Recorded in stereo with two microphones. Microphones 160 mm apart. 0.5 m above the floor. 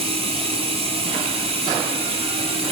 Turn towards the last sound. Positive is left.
turn(degrees=-40)  # may be behind; listen again after turning